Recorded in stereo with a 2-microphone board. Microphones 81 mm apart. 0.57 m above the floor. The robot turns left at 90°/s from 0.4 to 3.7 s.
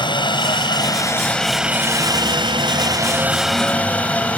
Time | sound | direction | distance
0.0 | a helicopter | 100° left | ?